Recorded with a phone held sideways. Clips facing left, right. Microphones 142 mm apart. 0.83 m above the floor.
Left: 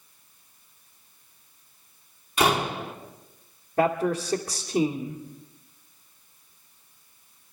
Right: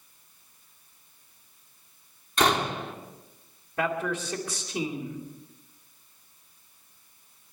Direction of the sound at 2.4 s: 10° left (ahead or behind).